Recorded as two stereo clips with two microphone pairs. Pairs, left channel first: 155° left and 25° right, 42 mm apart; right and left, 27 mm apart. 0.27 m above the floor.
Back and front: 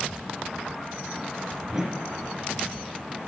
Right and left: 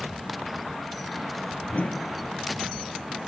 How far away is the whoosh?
About 1.4 m.